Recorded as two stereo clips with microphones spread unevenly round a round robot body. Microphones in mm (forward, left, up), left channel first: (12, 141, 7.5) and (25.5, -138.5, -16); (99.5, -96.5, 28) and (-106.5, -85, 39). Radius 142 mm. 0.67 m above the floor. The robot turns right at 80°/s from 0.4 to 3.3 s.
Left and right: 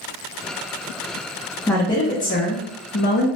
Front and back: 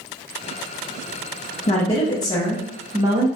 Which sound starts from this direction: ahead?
A woman speaking, at 1.7 s.